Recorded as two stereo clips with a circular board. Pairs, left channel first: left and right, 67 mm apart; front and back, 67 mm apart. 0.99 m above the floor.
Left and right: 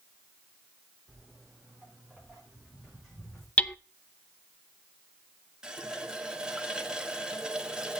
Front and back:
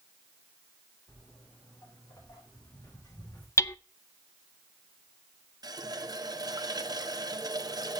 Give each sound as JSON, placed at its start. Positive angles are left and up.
{"t": 1.1, "sound": "footsteps", "azimuth_deg": -10, "distance_m": 6.0}
{"t": 3.6, "sound": "hammering", "azimuth_deg": 25, "distance_m": 0.5}
{"t": 5.6, "sound": "a running tap", "azimuth_deg": -165, "distance_m": 0.8}